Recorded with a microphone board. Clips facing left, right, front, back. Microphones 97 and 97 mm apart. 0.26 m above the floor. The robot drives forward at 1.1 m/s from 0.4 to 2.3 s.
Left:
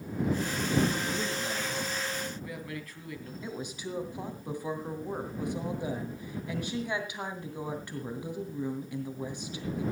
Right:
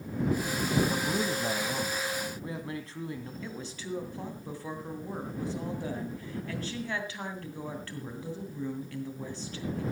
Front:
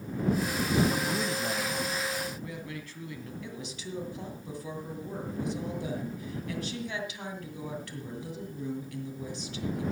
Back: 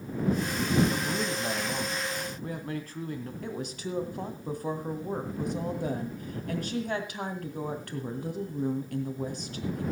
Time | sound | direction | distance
0.9 | a man speaking | 65° right | 1.3 m
3.4 | a woman speaking | 160° left | 2.5 m